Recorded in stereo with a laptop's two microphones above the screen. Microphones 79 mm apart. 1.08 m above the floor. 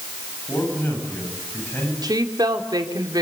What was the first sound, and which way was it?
A man speaking, 25° left (ahead or behind).